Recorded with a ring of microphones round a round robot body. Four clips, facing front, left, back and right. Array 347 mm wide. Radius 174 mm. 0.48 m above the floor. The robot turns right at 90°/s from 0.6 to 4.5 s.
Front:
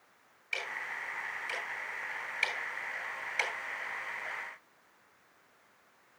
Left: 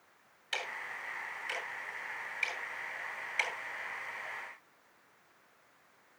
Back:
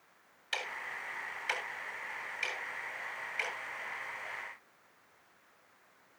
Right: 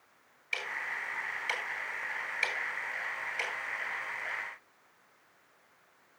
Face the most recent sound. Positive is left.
turn(degrees=125)